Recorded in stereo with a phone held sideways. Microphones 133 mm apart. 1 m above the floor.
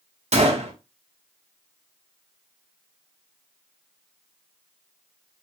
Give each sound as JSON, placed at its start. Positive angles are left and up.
{"t": 0.3, "sound": "a gunshot", "side_deg": -50, "distance_m": 0.8}